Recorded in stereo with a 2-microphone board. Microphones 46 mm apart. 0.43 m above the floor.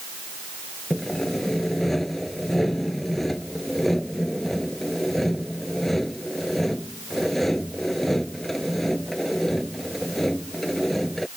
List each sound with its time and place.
0.9 s sawing: 5° left (ahead or behind)